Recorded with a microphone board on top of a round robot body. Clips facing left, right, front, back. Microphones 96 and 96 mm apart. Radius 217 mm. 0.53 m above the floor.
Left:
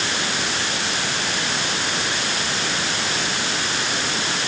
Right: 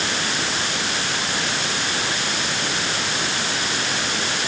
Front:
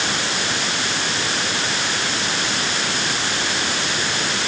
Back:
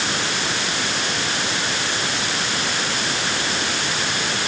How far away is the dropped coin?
No dropped coin in this recording.